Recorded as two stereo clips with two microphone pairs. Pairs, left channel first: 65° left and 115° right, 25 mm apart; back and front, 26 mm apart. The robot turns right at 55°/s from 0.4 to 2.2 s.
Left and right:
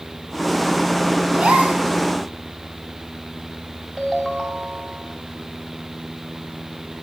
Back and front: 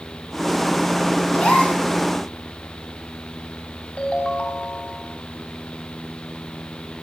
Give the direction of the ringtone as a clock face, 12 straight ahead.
6 o'clock.